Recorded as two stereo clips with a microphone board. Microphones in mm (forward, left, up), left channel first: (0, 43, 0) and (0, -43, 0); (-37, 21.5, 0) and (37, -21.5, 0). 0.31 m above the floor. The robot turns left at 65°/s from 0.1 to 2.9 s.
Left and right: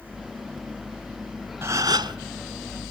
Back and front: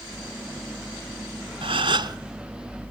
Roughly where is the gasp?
Ahead right.